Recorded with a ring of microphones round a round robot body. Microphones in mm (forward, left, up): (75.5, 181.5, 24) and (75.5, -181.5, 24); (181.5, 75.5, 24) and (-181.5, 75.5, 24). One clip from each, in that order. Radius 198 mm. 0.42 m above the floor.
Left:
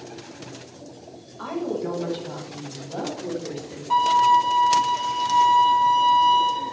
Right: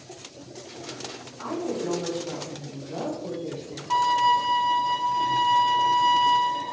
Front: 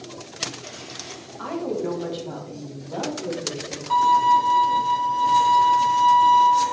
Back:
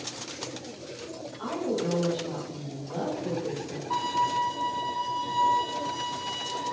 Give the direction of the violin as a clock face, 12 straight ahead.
12 o'clock.